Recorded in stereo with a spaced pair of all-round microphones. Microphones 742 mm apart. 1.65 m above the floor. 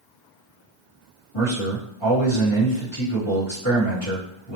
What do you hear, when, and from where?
1.3 s a man speaking: 25° left (ahead or behind), 2.5 m